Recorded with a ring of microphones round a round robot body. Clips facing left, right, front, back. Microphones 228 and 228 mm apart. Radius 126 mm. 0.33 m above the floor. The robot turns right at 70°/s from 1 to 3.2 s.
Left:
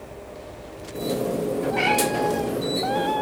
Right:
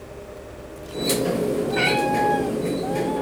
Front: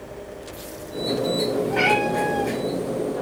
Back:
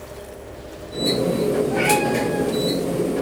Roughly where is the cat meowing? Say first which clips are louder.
Right 1 dB, back 2 dB; ahead right.